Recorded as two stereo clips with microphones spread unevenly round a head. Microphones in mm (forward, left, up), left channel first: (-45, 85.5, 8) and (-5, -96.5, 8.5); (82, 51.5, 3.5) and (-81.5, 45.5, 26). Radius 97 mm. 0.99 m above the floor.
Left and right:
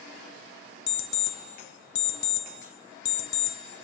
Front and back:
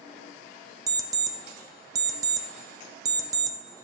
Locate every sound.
0.9 s an alarm clock: 115° left, 0.9 m